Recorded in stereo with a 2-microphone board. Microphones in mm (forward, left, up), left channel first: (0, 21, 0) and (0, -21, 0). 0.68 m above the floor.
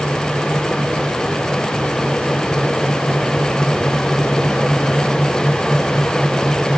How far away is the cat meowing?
No cat meowing in this recording.